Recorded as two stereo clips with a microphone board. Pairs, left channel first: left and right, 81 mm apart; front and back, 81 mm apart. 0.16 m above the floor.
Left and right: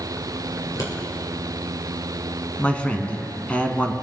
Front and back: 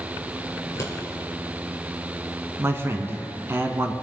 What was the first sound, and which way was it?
Scissors, 55° left.